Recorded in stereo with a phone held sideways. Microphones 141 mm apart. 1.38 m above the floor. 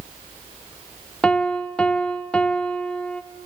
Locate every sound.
1.2 s a piano: 10° left (ahead or behind), 0.6 m